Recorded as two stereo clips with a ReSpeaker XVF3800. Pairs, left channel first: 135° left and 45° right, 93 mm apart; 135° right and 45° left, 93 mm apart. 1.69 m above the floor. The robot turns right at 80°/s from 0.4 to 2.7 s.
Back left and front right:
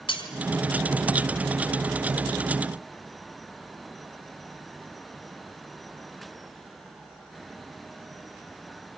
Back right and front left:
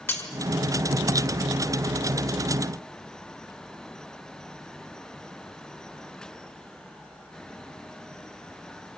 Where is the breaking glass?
160° left, 5.5 m.